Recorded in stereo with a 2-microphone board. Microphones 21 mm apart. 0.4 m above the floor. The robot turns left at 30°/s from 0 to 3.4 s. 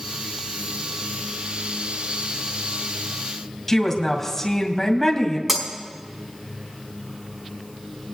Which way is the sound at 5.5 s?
10° right (ahead or behind).